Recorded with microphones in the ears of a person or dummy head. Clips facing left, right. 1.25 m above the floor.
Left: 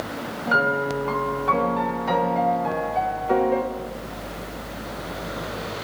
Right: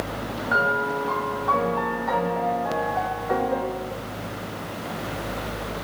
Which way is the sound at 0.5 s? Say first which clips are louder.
Left 3 dB; 45° left (ahead or behind).